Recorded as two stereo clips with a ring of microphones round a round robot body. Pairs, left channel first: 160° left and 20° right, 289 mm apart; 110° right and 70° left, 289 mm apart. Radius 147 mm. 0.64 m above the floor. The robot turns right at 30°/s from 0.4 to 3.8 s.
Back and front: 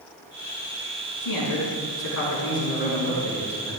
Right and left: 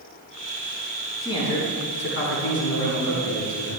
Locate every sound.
1.2 s a man speaking: 170° left, 5.5 m; by 3.8 s 115° right, 5.5 m